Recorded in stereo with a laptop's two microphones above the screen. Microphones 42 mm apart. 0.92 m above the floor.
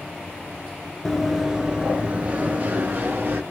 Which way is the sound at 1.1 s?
Centre (ahead or behind).